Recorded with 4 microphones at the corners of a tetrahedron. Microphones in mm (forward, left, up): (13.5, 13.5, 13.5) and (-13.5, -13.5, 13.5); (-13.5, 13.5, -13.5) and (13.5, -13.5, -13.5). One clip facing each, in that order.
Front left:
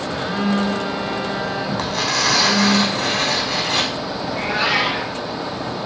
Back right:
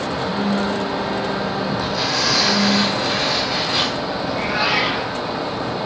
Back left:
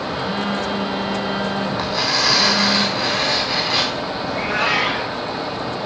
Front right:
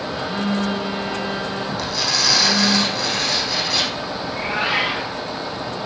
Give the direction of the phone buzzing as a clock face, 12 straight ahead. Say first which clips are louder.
Front left 2 dB, even; 9 o'clock.